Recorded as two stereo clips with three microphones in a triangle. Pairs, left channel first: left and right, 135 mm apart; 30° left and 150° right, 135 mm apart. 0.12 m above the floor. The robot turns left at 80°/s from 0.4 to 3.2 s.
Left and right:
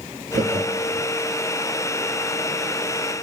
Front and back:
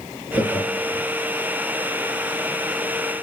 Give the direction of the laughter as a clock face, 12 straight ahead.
2 o'clock.